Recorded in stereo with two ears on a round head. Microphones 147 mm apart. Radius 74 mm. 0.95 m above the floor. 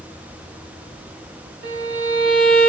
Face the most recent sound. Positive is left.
turn(degrees=-65)  # may be behind; listen again after turning